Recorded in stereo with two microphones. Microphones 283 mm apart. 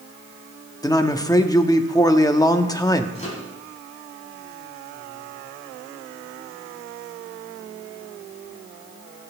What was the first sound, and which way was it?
A man speaking, 15° left (ahead or behind).